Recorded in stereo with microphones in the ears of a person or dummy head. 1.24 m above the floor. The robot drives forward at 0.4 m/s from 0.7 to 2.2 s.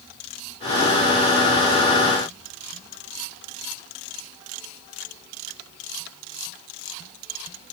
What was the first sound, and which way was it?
Only background noise.